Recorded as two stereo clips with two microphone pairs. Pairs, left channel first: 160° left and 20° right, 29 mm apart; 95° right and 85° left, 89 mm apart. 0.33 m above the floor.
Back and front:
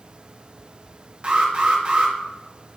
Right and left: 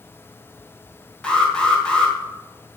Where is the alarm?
20° right, 1.5 m.